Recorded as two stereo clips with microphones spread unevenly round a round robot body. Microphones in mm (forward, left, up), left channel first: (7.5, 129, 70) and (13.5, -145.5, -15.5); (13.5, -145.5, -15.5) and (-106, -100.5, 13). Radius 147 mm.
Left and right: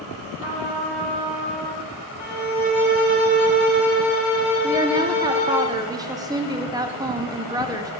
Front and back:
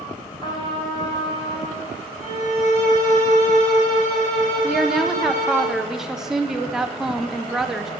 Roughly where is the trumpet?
Right.